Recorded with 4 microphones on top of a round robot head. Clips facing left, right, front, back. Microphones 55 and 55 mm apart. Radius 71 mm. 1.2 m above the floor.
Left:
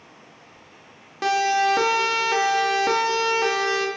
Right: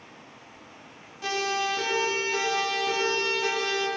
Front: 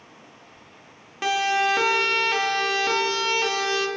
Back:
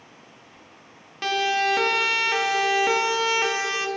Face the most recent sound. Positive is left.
turn(degrees=120)